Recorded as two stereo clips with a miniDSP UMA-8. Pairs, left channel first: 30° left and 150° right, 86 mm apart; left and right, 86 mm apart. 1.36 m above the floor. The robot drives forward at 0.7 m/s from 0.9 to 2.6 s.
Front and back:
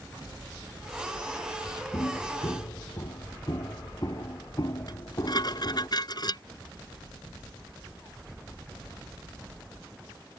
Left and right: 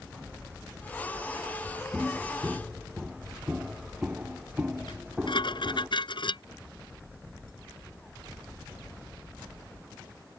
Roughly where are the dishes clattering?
Left.